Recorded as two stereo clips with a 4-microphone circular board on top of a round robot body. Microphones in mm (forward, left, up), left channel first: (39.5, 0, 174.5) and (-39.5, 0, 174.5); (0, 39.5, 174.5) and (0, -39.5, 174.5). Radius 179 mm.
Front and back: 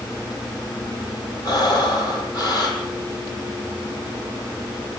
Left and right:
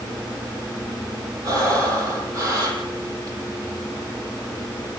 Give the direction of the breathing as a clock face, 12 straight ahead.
1 o'clock.